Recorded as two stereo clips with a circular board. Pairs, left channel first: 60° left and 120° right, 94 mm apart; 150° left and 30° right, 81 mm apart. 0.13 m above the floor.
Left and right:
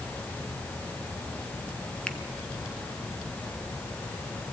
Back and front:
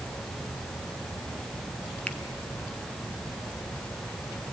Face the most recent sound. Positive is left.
turn(degrees=110)